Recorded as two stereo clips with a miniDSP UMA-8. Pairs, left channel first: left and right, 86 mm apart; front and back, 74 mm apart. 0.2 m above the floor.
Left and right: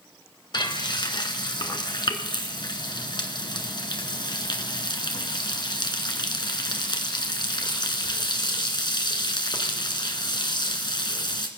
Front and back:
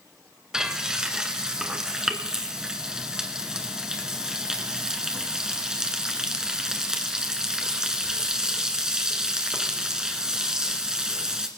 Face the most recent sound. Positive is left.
turn(degrees=100)